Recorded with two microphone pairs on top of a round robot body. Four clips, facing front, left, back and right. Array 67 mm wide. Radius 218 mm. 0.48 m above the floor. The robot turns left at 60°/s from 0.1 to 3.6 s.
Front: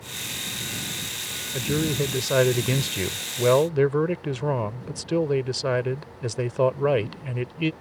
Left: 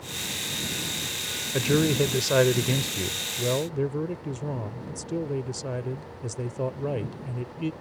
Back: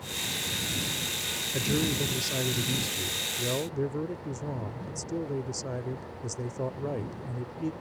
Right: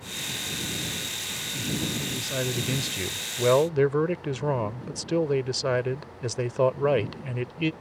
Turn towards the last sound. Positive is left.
turn(degrees=-40)